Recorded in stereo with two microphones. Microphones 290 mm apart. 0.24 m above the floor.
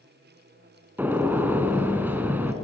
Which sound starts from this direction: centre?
A gunshot, at 1.0 s.